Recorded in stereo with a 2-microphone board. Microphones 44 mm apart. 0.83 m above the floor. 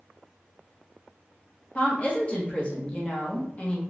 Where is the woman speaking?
25° left (ahead or behind), 0.9 m.